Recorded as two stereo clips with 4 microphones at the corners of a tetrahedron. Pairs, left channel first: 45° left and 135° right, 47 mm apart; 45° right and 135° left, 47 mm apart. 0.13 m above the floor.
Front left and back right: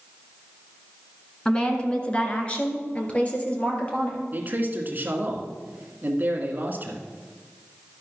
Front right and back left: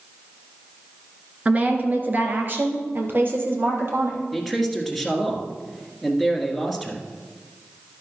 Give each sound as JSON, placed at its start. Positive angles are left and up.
{"t": 1.4, "sound": "a woman speaking", "azimuth_deg": 105, "distance_m": 1.4}
{"t": 4.3, "sound": "a man speaking", "azimuth_deg": -140, "distance_m": 1.5}